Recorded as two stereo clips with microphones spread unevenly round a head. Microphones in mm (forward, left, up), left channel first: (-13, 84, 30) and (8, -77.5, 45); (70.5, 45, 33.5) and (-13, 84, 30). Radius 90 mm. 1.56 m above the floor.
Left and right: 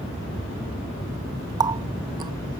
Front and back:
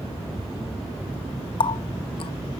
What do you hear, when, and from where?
1.6 s a running tap: 25° right